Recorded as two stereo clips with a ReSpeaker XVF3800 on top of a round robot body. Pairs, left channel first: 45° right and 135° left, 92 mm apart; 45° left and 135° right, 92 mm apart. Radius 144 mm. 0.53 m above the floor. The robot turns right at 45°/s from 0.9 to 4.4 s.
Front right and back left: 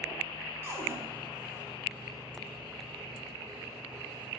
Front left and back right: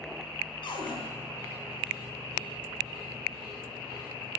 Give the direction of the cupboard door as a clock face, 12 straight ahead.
10 o'clock.